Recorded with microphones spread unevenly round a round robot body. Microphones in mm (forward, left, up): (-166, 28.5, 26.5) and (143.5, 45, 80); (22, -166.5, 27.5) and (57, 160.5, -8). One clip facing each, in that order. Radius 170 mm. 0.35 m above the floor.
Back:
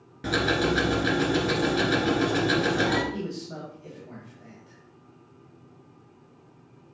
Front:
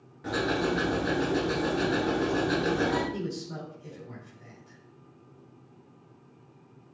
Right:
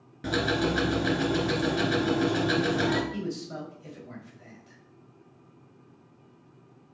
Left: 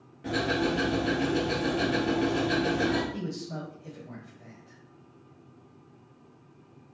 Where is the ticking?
135° right, 2 m.